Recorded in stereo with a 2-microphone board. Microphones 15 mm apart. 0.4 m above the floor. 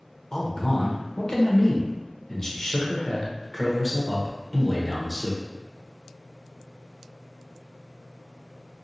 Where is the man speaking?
35° left (ahead or behind), 0.9 m.